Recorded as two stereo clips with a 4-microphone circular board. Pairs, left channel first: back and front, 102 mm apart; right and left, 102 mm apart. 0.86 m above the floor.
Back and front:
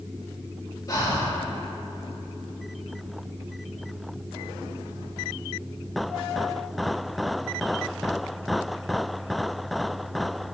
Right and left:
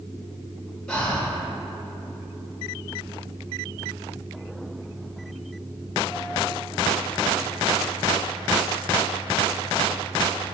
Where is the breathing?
165° right, 0.8 m.